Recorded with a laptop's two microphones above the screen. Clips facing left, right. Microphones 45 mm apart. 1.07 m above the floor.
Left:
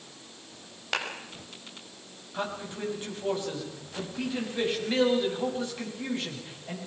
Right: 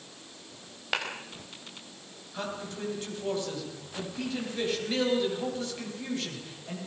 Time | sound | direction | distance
0.9 | a clap | 5° right (ahead or behind) | 5 m
2.3 | a man speaking | 15° left (ahead or behind) | 9 m